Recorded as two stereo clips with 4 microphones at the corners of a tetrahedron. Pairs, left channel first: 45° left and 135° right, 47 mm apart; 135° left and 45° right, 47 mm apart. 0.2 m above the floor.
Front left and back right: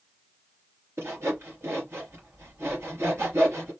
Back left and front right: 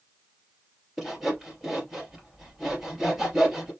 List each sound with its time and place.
1.0 s sawing: 130° right, 3 m